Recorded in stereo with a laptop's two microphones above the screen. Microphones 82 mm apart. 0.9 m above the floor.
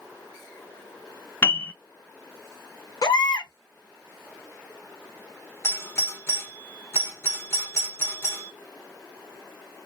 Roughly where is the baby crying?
Left.